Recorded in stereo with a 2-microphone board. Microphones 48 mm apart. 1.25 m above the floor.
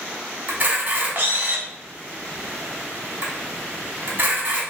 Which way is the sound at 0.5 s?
40° right (ahead or behind).